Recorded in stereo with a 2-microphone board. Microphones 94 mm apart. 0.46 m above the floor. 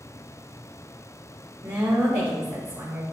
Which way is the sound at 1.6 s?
20° right (ahead or behind).